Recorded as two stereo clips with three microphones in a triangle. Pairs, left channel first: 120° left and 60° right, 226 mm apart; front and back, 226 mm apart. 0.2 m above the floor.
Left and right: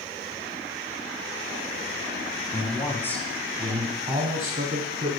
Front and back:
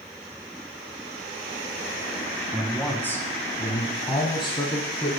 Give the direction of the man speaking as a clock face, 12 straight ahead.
9 o'clock.